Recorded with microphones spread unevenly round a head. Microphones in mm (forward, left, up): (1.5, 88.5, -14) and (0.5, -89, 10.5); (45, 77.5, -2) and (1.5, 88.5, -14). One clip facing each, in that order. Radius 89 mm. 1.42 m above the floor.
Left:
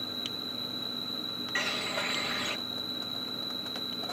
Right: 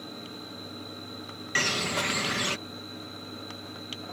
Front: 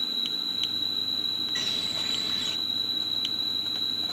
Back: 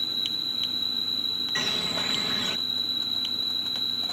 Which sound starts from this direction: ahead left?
An insect, at 0.0 s.